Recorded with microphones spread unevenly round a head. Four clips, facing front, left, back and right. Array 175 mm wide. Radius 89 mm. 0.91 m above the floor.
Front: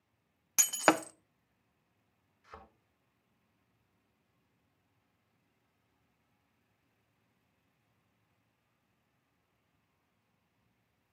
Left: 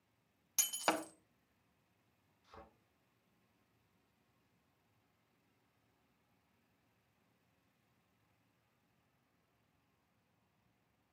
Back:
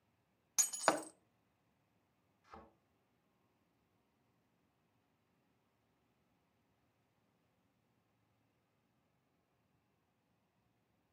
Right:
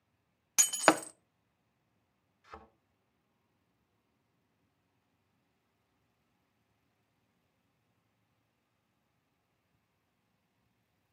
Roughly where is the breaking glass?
Ahead right.